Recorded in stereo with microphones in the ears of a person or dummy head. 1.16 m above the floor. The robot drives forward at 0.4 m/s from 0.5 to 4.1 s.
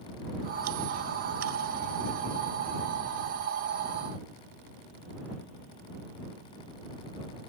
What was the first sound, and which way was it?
Only background noise.